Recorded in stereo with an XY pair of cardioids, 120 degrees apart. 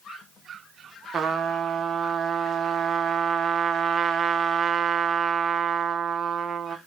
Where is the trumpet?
40° right, 0.6 m.